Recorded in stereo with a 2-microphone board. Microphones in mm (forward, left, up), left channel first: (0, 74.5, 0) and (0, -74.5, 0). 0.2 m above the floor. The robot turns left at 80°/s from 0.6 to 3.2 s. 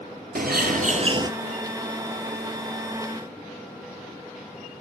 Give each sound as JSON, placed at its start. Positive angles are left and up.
{"t": 0.3, "sound": "a bird", "azimuth_deg": -100, "distance_m": 0.8}